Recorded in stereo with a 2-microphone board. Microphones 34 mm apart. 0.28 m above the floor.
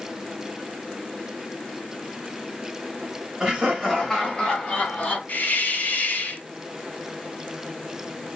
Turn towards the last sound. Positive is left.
turn(degrees=60)  # may be behind; listen again after turning